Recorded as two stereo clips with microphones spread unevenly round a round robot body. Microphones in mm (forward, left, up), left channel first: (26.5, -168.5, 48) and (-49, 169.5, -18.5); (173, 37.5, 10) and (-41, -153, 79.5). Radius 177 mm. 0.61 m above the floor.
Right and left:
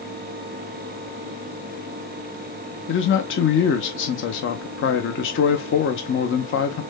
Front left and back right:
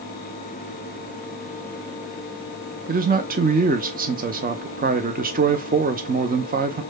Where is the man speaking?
90° right, 0.7 m.